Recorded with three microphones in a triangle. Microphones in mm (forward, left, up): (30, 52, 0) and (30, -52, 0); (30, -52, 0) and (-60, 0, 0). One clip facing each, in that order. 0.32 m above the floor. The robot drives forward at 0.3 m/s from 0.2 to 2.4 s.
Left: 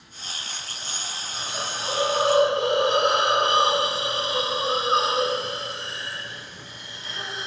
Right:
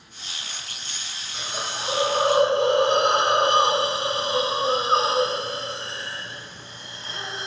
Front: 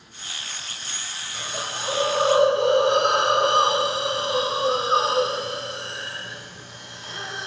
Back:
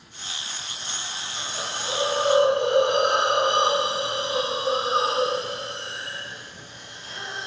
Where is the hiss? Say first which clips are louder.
Right 1 dB, front 2 dB; 15° right, 0.8 m; by 7.5 s 30° right, 0.5 m.